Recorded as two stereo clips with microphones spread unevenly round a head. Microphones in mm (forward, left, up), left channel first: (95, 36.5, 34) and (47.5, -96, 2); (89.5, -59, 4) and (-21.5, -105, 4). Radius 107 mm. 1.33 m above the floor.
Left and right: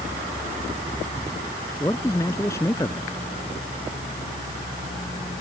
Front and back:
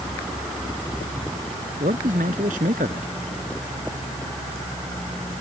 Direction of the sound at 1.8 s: 145° left.